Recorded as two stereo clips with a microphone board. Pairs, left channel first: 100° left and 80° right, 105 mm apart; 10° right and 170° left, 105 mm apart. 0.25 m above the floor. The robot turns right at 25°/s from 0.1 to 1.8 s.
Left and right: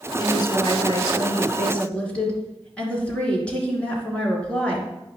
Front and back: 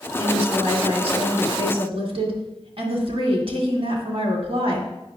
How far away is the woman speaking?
About 2.5 m.